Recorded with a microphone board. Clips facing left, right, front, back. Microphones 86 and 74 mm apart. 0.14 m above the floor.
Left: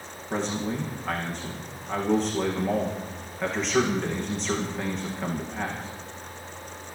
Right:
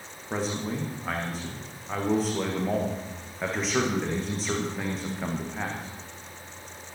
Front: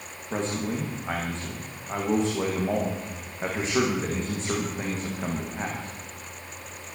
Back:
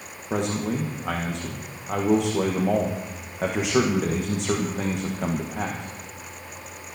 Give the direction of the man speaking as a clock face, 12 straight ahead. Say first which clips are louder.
Left 2 dB, back 3 dB; 6 o'clock.